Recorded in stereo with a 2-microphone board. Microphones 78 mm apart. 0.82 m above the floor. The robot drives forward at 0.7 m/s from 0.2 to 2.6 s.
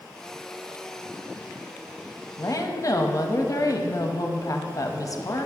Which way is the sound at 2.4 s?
45° left (ahead or behind).